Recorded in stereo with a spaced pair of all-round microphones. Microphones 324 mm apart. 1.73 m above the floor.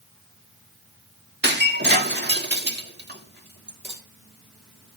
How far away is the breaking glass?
About 1.5 m.